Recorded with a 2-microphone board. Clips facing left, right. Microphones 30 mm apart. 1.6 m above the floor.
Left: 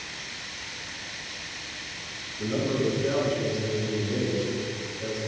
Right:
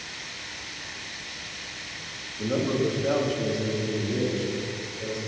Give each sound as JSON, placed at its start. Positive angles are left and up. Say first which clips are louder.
{"t": 2.4, "sound": "a man speaking", "louder": "right 1 dB", "side_deg": -60, "distance_m": 2.5}